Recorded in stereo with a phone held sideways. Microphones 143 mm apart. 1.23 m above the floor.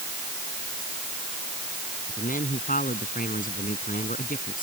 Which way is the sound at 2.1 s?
75° left (ahead or behind).